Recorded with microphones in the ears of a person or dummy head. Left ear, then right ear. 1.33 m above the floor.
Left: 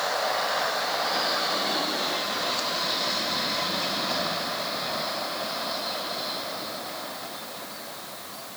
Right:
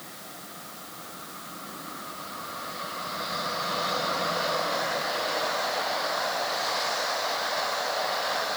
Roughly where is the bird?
No bird in this recording.